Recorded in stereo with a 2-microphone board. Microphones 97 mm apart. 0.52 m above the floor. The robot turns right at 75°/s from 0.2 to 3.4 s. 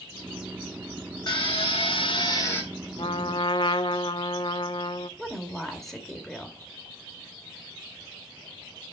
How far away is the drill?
About 2.5 m.